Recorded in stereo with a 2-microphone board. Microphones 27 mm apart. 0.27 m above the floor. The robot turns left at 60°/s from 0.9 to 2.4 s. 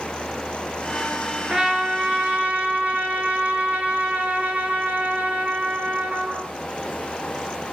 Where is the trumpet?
25° right, 4 m; by 6.5 s 80° right, 4 m.